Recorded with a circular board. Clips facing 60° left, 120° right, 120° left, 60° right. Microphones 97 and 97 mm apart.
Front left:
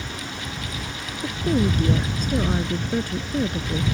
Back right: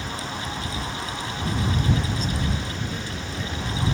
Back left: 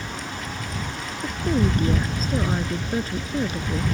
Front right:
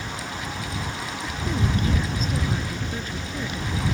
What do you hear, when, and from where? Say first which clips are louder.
1.2 s a woman speaking: front left 8 dB, back left 6 dB; 75° left